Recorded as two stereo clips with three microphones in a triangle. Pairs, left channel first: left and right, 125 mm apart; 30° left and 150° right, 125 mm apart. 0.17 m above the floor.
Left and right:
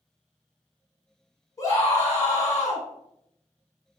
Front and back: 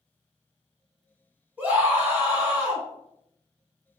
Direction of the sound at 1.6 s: 140° left.